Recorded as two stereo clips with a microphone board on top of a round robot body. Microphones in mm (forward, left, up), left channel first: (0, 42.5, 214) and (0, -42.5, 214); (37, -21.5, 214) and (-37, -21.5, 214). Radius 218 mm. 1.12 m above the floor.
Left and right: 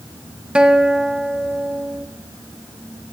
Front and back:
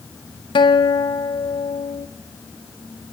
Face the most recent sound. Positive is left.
turn(degrees=-10)